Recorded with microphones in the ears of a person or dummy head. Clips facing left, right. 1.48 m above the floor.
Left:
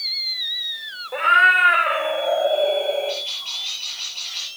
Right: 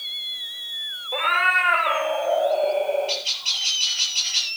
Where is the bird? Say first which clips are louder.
Left 3 dB; 55° right (ahead or behind), 8 m.